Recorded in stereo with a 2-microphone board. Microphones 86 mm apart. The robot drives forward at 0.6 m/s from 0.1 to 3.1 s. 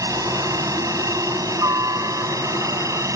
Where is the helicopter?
40° right (ahead or behind).